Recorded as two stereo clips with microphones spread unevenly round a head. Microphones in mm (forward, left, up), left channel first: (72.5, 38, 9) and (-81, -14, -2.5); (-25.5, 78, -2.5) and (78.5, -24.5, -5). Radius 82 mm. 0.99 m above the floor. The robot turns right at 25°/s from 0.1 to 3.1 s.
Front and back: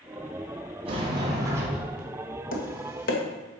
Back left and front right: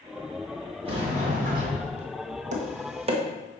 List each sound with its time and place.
0.8 s a sliding door: 105° right, 2.5 m; by 2.0 s 75° right, 2.5 m
2.5 s tapping: 20° right, 1.6 m; by 3.2 s 5° right, 1.6 m